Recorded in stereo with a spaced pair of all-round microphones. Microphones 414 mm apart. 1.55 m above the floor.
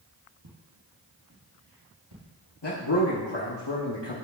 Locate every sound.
0.4 s footsteps: 50° right (ahead or behind), 2.5 m; by 3.1 s 55° right (ahead or behind), 3.5 m
2.6 s a man speaking: 75° left (ahead or behind), 1.2 m